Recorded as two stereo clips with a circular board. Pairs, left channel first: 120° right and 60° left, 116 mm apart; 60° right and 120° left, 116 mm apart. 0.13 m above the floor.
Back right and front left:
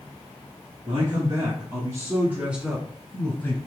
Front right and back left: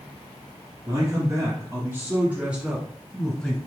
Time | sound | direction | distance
0.9 | a man speaking | 70° left | 1.8 m